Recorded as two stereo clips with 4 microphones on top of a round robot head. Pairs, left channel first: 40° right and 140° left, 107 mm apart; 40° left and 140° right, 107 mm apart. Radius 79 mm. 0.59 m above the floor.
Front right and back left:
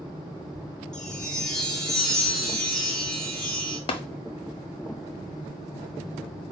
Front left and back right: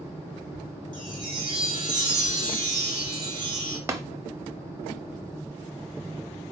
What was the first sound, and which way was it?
A chime, 120° right.